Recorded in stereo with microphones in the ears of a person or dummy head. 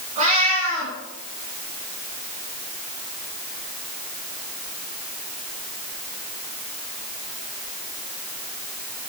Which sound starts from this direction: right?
A cat meowing, at 0.2 s.